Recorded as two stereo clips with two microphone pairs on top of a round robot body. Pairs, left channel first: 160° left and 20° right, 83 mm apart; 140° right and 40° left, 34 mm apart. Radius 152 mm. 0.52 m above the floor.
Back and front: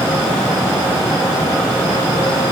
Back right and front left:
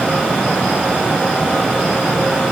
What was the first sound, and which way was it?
Only background noise.